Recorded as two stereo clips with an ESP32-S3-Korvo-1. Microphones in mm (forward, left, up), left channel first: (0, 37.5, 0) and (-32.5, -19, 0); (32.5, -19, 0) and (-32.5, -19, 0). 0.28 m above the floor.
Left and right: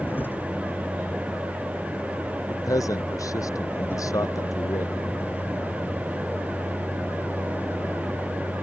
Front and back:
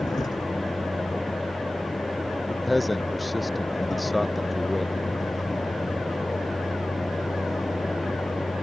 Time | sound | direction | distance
0.0 | a vehicle | straight ahead | ?
2.5 | a man speaking | 90° left | ?